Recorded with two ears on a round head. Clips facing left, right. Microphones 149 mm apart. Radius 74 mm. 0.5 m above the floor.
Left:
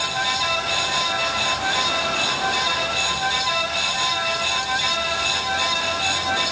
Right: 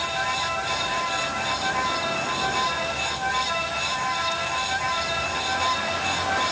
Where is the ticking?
I don't hear ticking.